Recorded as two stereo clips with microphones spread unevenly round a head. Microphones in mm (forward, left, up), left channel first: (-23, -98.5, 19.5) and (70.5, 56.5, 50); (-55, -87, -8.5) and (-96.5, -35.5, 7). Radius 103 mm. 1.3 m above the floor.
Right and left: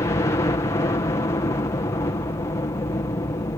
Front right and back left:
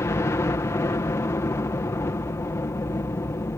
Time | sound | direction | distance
0.0 | a helicopter | 65° right | ?